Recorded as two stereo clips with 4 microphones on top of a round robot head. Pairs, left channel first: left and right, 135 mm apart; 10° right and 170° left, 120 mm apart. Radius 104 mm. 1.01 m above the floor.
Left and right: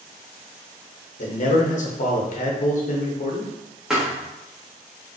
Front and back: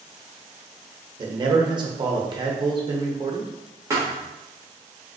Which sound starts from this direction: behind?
A thud, at 3.9 s.